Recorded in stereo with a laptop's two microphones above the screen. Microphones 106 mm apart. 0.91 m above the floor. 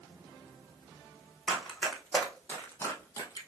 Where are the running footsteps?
Centre (ahead or behind), 2 m; by 3.5 s 40° left (ahead or behind), 1.2 m.